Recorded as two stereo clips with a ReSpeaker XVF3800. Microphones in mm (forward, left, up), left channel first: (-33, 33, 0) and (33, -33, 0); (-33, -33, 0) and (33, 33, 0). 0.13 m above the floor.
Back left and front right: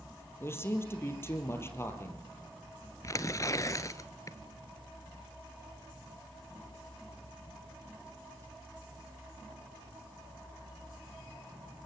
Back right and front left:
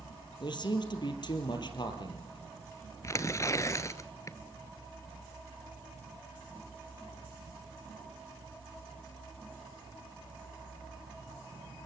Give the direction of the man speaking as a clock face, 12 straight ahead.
5 o'clock.